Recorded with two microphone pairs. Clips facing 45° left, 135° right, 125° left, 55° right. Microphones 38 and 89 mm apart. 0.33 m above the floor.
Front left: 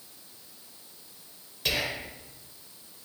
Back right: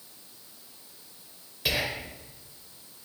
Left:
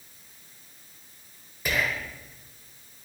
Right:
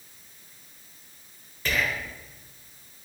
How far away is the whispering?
About 0.8 m.